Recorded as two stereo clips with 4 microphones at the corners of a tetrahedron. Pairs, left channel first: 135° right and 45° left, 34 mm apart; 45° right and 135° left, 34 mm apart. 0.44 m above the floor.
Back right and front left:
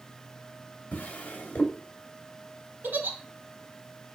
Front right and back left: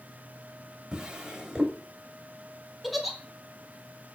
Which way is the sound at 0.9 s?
160° right.